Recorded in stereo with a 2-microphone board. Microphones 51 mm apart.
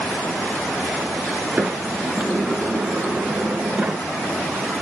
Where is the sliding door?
25° right (ahead or behind), 0.9 m.